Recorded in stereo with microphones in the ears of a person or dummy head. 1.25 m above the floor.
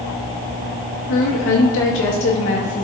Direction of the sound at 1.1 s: 70° left (ahead or behind).